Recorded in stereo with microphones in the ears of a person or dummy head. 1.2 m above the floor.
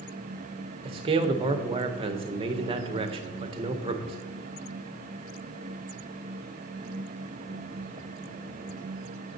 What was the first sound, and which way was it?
A man speaking, 25° right (ahead or behind).